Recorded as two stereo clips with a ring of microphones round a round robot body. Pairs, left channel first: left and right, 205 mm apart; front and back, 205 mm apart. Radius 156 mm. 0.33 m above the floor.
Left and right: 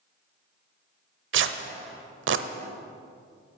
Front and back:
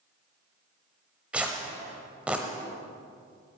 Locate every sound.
1.3 s tearing paper: 95° right, 0.7 m